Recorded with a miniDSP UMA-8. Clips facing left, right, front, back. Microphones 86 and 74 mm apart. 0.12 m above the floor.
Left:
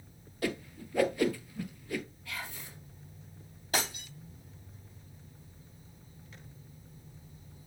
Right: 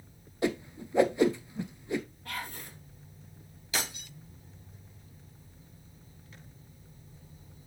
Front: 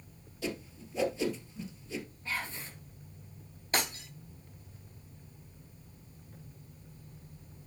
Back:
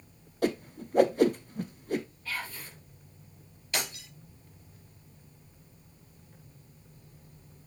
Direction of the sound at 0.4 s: 155° right.